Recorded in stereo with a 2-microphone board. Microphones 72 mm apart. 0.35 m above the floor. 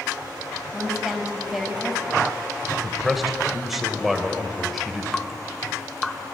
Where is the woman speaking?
5° right (ahead or behind), 1.8 m.